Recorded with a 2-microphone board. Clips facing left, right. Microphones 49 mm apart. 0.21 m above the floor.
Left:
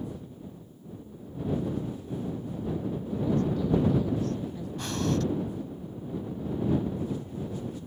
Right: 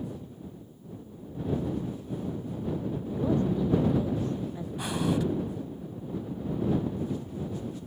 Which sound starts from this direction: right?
A woman speaking, at 3.1 s.